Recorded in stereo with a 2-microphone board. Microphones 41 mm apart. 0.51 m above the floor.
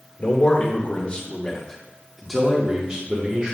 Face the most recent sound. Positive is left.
turn(degrees=-30)  # may be behind; listen again after turning